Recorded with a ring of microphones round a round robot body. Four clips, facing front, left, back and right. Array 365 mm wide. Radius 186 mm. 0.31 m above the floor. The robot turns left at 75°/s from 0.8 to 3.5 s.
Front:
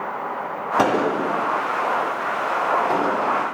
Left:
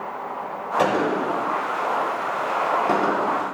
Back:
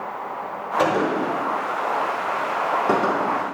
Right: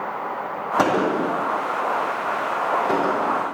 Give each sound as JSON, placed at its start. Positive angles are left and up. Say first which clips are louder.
{"t": 0.8, "sound": "a gunshot", "louder": "right 1 dB, front 1 dB", "azimuth_deg": -40, "distance_m": 3.5}